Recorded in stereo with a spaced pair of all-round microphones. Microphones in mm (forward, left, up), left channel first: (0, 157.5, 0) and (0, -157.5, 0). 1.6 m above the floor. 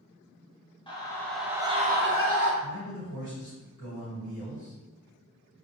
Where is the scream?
15° left (ahead or behind), 0.8 m; by 2.5 s 55° right (ahead or behind), 0.6 m.